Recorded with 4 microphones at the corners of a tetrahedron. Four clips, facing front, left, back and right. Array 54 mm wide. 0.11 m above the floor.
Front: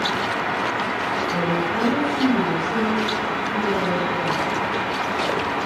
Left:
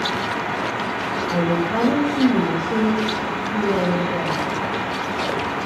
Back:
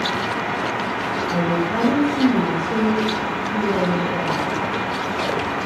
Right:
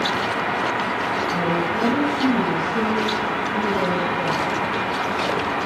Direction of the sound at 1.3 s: 115° left.